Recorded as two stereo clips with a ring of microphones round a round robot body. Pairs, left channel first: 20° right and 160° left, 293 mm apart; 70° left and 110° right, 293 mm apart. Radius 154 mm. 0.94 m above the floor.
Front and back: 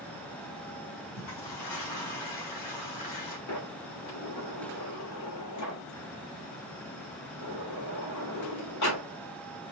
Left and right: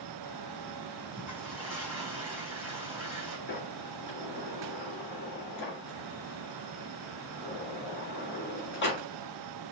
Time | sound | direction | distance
1.2 | a toilet flushing | 30° right | 3 m
3.5 | a sliding door | 15° left | 2.5 m